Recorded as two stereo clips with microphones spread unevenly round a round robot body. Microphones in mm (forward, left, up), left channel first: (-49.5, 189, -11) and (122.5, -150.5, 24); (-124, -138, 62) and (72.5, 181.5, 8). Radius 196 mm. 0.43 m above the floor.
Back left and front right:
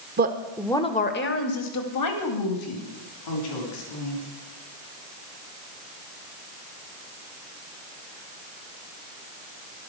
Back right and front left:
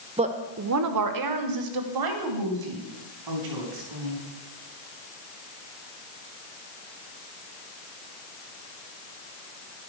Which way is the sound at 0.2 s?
5° right.